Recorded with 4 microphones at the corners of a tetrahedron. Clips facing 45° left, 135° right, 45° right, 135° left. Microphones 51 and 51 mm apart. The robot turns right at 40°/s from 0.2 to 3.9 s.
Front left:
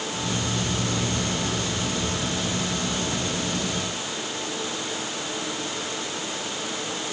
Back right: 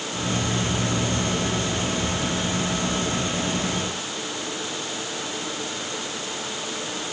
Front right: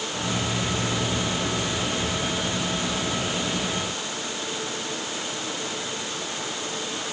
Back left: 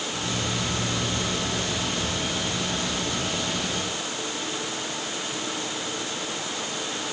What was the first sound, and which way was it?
Only background noise.